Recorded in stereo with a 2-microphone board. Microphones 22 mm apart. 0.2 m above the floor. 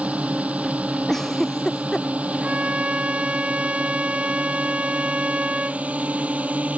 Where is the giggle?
15° left (ahead or behind).